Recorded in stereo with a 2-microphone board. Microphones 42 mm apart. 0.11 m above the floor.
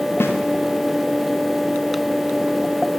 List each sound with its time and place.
0.2 s a snare drum: 65° left (ahead or behind), 3 m